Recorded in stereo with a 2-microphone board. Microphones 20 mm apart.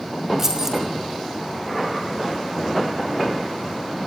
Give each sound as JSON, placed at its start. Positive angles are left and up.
{"t": 0.4, "sound": "keys jangling", "side_deg": -15, "distance_m": 5.0}